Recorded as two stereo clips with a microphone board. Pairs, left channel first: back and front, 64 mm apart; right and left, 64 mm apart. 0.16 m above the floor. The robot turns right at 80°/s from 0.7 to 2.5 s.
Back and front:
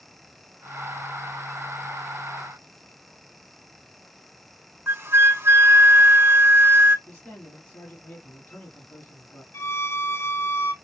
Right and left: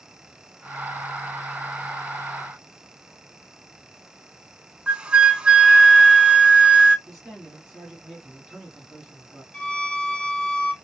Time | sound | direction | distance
4.9 | a flute | 25° left | 0.6 m
7.1 | a man speaking | 165° left | 1.2 m
9.5 | a violin | 155° right | 0.8 m